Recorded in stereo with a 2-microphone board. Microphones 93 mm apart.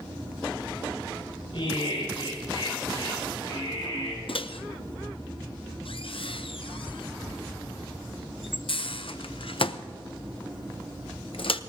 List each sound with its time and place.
1.5 s laughter: 70° left (ahead or behind), 6.5 m; by 4.3 s 40° left (ahead or behind), 8.5 m
4.3 s a microwave: 70° left (ahead or behind), 0.5 m